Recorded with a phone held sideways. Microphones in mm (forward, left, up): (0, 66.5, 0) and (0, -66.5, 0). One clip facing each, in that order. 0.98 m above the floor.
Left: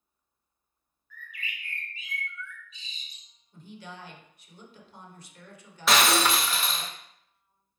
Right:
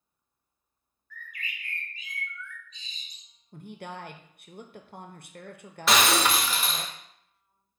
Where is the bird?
5° left (ahead or behind), 1.2 m.